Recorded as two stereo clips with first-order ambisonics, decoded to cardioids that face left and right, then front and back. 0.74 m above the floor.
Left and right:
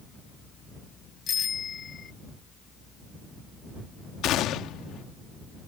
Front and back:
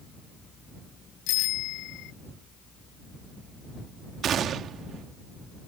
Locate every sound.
1.3 s a bicycle bell: 25° left
4.2 s a gunshot: 125° left